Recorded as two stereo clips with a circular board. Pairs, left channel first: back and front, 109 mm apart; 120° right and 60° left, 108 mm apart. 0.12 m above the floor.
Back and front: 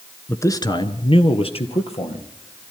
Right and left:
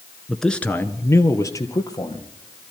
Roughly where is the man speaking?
Behind left.